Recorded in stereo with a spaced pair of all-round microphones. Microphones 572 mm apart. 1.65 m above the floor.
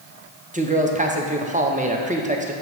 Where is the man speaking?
15° right (ahead or behind), 0.7 m.